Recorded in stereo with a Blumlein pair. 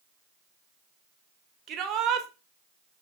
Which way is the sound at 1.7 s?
30° right.